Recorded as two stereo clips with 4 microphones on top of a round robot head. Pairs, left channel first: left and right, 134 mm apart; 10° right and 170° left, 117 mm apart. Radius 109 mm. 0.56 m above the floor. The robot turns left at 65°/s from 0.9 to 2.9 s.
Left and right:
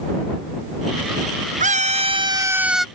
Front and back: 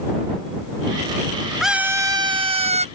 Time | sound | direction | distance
1.6 | a scream | 100° right | ?